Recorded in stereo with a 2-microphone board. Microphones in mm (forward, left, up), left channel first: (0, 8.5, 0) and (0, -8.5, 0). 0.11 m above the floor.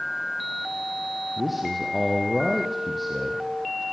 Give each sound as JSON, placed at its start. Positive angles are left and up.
{"t": 1.4, "sound": "a man speaking", "side_deg": -10, "distance_m": 4.5}